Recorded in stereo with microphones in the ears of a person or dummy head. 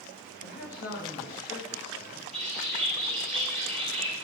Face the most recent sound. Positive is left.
turn(degrees=15)  # may be behind; listen again after turning